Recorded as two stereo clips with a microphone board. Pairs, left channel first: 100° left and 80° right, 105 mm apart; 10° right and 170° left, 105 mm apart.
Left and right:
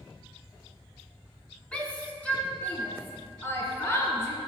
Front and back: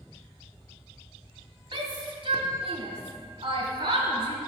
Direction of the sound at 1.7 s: 175° left.